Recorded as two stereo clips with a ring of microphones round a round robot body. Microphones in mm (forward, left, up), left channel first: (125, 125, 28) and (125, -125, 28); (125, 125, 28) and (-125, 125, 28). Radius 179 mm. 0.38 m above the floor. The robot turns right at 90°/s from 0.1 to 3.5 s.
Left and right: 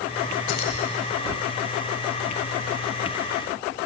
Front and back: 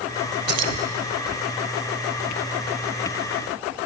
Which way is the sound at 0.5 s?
135° left.